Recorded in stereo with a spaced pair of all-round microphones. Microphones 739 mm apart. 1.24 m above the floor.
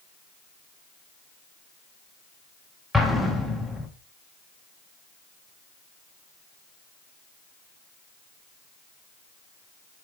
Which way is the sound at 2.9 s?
Centre (ahead or behind).